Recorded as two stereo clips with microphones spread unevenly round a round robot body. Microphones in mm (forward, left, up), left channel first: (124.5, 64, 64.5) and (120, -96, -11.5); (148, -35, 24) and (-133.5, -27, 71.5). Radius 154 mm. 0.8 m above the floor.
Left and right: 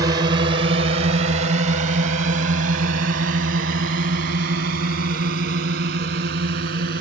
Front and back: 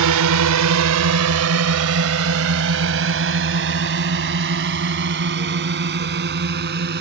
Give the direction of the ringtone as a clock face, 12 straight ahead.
No ringtone in this recording.